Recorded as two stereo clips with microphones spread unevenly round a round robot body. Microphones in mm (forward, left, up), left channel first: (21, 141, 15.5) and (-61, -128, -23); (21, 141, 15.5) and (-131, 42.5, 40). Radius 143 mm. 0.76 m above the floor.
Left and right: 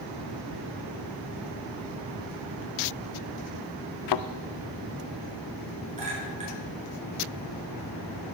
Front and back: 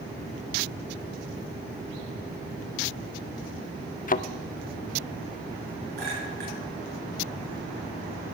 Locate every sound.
4.1 s a thud: 85° left, 0.6 m
6.0 s a clink: 175° right, 7.5 m